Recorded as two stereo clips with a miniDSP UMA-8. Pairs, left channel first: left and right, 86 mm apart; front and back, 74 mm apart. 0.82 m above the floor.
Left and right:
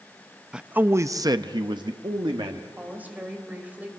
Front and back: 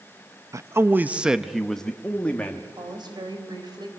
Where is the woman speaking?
160° right, 4 m.